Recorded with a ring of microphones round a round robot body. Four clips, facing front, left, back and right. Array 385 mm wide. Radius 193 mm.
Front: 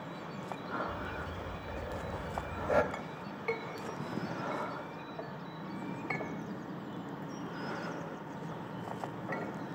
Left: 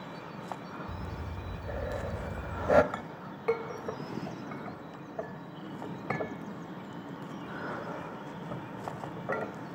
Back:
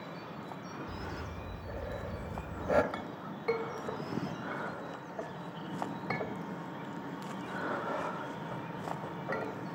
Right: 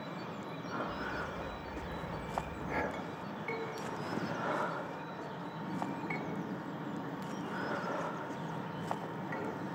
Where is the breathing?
95° left, 1.4 m.